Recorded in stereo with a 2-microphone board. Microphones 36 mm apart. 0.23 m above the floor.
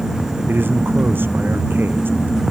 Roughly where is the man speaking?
Right.